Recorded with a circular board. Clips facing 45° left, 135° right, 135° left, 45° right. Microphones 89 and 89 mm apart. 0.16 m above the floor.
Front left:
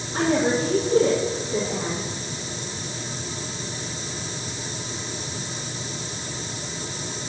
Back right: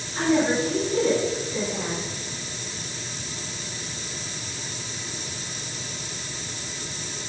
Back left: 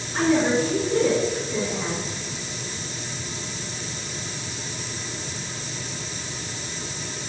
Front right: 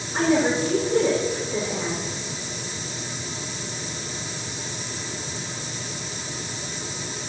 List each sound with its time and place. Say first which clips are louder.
0.1 s a woman speaking: even, even; 35° left, 5.5 m